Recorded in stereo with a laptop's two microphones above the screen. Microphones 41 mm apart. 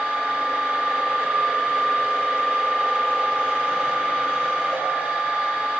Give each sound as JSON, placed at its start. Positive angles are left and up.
{"t": 0.0, "sound": "a machine running", "side_deg": -40, "distance_m": 2.5}